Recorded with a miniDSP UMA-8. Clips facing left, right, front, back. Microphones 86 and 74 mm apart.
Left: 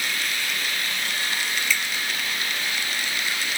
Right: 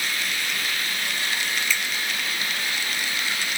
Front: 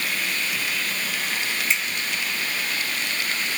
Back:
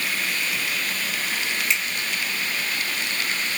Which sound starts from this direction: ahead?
A finger snap, at 1.7 s.